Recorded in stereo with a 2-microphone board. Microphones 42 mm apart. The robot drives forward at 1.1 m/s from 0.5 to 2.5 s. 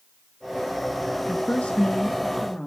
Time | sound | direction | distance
1.3 | a woman speaking | 30° left (ahead or behind) | 0.7 m